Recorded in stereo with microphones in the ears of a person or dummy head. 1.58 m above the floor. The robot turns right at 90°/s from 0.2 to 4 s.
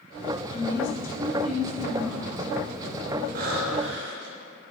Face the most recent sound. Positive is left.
turn(degrees=-70)